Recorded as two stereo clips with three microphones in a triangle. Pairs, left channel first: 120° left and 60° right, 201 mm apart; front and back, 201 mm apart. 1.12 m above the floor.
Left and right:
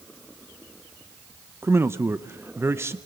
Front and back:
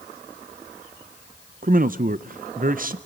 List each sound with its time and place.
1.6 s a man speaking: 135° right, 0.5 m